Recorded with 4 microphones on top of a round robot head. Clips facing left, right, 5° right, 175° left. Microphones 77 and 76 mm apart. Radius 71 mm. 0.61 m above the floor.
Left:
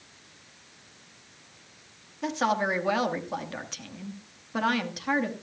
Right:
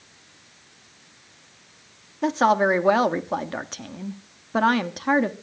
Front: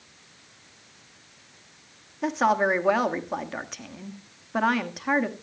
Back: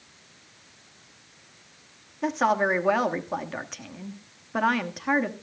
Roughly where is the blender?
No blender in this recording.